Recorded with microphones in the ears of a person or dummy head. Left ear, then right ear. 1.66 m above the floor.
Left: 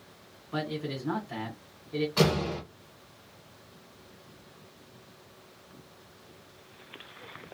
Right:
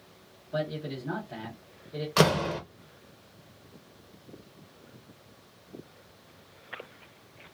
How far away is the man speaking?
About 1.7 m.